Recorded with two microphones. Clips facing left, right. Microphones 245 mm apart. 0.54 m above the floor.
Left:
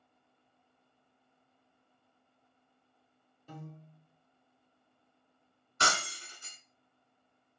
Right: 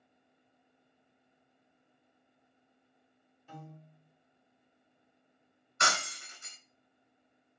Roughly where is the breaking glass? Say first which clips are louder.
Left 1 dB; left.